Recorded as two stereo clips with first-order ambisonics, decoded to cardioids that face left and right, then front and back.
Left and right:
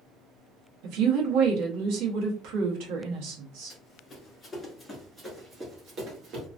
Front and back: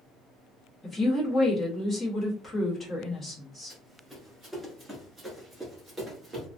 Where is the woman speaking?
80° right, 1.3 m.